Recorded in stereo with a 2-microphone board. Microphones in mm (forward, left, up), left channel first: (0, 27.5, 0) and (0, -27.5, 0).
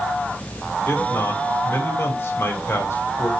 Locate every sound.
0.9 s a man speaking: 55° left (ahead or behind), 2.5 m